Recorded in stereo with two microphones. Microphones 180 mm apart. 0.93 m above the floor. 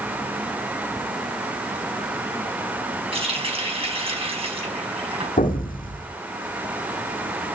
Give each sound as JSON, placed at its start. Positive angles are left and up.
{"t": 3.1, "sound": "a running tap", "side_deg": -30, "distance_m": 4.0}
{"t": 5.4, "sound": "an explosion", "side_deg": 50, "distance_m": 1.5}